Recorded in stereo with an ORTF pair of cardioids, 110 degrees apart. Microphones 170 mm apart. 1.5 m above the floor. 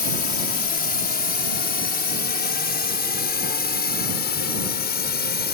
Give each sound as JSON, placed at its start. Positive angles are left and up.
{"t": 0.0, "sound": "a drone", "azimuth_deg": 60}